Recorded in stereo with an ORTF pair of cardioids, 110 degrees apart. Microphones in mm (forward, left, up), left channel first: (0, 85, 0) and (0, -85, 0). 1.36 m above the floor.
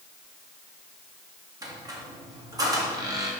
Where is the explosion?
I don't hear an explosion.